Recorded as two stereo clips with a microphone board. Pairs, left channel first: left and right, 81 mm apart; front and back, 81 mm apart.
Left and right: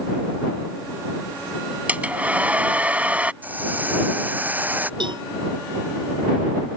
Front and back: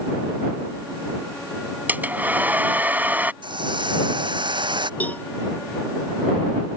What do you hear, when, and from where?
1.9 s a hair dryer: 140° right
3.4 s a hiss: 160° right
5.0 s a cowbell: 70° right